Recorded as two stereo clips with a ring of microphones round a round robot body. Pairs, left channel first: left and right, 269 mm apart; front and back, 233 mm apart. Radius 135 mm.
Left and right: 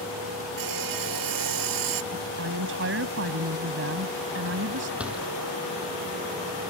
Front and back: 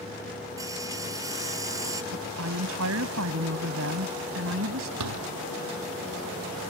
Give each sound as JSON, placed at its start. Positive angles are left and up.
{"t": 0.6, "sound": "sawing", "azimuth_deg": -100}
{"t": 2.1, "sound": "a woman speaking", "azimuth_deg": -135}
{"t": 5.0, "sound": "a door slam", "azimuth_deg": -175}